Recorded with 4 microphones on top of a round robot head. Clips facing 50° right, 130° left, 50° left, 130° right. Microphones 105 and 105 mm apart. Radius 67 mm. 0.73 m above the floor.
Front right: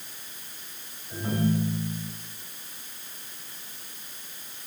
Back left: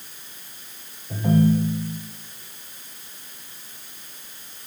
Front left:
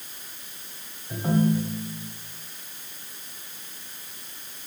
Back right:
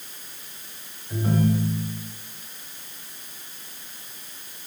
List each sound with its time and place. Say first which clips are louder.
1.1 s a ringtone: back left 7 dB, even; 125° left, 1.7 m